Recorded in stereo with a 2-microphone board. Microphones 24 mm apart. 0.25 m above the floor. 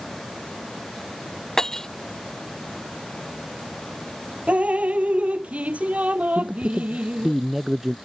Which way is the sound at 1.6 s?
20° left (ahead or behind).